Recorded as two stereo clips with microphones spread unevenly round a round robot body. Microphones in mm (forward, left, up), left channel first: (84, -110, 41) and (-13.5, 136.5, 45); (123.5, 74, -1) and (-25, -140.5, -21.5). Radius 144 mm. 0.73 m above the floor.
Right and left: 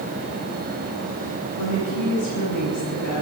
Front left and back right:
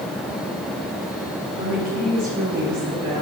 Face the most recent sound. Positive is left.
turn(degrees=-70)